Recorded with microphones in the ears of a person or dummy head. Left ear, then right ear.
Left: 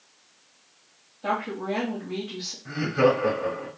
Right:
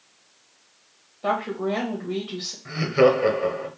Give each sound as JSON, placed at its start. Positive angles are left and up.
{"t": 1.2, "sound": "a woman speaking", "side_deg": -35, "distance_m": 1.1}
{"t": 2.6, "sound": "laughter", "side_deg": -40, "distance_m": 1.2}